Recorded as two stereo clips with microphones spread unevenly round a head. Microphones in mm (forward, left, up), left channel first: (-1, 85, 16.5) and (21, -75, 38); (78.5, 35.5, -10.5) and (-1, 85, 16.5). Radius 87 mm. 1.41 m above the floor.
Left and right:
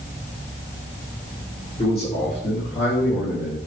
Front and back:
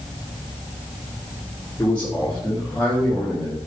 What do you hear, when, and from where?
1.8 s a man speaking: 40° left, 4 m; by 3.6 s 65° left, 3.5 m